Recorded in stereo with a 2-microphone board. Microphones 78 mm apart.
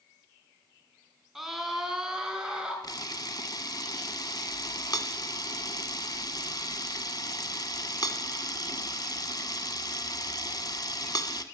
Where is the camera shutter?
60° left (ahead or behind), 1.0 m.